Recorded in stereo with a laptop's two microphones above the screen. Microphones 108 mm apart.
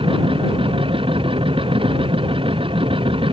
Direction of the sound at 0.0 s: 55° right (ahead or behind).